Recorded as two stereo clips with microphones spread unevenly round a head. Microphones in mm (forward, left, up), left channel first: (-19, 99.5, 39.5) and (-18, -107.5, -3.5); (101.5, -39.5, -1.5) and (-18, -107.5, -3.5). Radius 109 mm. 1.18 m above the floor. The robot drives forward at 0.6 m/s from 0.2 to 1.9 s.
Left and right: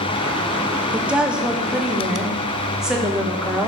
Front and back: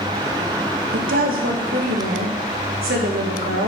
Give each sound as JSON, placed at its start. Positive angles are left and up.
{"t": 0.9, "sound": "a woman speaking", "azimuth_deg": -165, "distance_m": 0.6}